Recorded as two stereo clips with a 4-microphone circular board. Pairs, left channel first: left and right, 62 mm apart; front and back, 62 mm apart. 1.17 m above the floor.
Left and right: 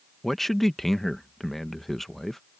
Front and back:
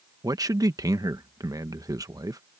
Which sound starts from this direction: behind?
A man speaking, at 0.2 s.